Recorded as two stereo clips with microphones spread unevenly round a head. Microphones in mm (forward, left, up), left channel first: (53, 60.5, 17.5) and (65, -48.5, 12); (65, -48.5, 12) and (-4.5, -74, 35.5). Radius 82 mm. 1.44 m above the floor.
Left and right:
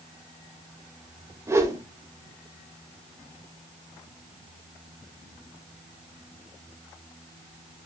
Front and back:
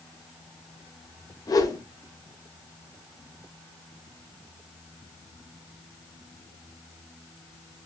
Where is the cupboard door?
I don't hear a cupboard door.